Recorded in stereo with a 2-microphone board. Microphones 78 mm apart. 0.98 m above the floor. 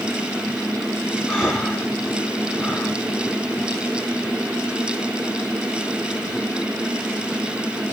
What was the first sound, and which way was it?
Breathing, 5° left (ahead or behind).